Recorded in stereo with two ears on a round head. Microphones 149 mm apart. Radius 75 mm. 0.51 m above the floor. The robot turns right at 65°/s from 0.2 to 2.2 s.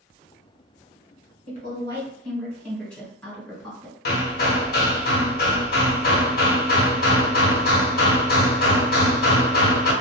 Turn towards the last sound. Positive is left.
turn(degrees=60)  # may be behind; listen again after turning